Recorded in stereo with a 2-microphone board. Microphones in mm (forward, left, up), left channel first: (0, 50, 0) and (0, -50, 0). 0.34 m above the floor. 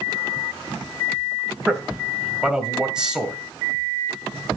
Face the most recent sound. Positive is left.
turn(degrees=-10)  # may be behind; listen again after turning